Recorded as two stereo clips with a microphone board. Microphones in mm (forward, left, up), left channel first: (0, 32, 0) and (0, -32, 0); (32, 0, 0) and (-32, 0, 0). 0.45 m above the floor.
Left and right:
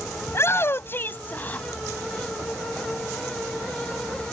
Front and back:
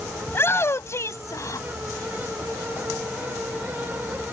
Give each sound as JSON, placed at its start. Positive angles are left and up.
{"t": 0.3, "sound": "a shout", "azimuth_deg": 50}